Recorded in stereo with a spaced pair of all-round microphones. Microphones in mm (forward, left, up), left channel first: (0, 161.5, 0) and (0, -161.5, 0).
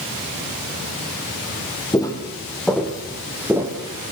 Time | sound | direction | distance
1.9 | footsteps | 10° left (ahead or behind) | 3 m